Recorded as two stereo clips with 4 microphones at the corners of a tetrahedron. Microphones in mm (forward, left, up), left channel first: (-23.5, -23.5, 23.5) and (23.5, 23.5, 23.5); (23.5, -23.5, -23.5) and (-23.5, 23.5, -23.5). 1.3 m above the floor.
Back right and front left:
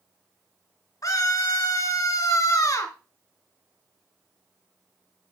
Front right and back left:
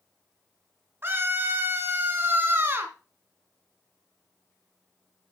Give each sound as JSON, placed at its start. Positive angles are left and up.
{"t": 1.0, "sound": "a scream", "azimuth_deg": -170, "distance_m": 2.5}